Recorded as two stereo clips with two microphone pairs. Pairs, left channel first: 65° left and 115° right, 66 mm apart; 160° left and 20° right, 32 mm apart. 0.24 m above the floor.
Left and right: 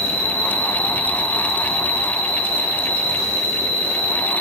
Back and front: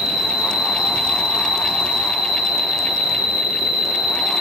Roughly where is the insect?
Right.